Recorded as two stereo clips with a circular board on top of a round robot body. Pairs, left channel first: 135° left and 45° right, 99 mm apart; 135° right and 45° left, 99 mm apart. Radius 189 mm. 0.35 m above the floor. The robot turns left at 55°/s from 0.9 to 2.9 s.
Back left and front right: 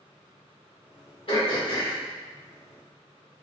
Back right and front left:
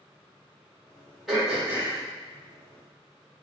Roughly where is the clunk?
I don't hear a clunk.